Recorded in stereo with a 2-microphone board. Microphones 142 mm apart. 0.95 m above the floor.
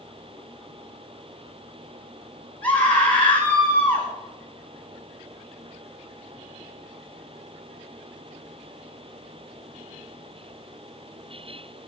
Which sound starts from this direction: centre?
A scream, at 2.6 s.